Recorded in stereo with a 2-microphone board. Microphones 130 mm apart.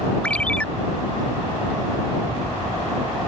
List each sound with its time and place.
0.2 s a ringtone: 10° left (ahead or behind)